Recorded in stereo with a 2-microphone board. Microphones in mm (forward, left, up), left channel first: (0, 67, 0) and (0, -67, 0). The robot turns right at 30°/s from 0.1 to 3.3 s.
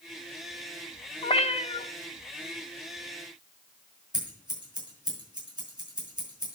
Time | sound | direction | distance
1.2 | a cat meowing | 45° left (ahead or behind) | 0.6 m
4.1 | scissors | 30° right (ahead or behind) | 5.5 m